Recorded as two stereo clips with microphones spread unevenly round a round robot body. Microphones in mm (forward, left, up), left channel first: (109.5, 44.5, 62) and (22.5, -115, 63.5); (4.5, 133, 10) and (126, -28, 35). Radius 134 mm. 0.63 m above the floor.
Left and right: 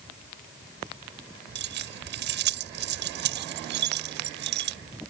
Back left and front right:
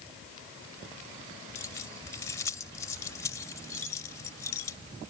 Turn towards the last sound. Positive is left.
turn(degrees=-155)